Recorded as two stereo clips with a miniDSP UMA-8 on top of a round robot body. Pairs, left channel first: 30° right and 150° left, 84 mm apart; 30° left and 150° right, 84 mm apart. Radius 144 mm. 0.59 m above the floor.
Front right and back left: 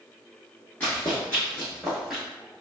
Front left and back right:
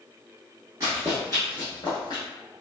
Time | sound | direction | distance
0.8 | running footsteps | 95° right | 0.6 m